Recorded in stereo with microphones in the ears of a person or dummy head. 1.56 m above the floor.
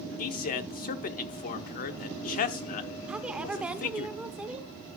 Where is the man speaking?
45° left (ahead or behind), 0.8 m.